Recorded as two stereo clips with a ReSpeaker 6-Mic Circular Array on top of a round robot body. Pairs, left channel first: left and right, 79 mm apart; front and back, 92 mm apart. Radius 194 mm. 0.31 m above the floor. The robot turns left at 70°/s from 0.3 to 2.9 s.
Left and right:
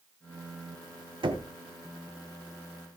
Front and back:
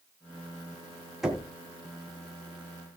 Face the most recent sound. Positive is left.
turn(degrees=150)